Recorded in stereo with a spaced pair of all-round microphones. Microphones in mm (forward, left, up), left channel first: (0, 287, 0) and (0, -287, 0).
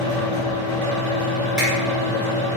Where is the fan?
25° right (ahead or behind), 1.9 m.